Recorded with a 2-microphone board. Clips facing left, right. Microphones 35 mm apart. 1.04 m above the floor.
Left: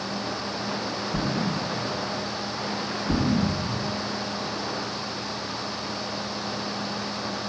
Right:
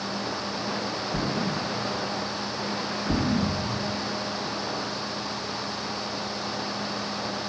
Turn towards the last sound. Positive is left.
turn(degrees=25)  # may be behind; listen again after turning